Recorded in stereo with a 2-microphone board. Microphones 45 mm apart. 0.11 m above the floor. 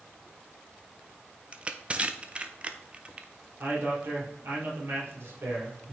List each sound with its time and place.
1.5 s crushing: 25° right (ahead or behind), 0.6 m
3.6 s a man speaking: 60° right (ahead or behind), 3.5 m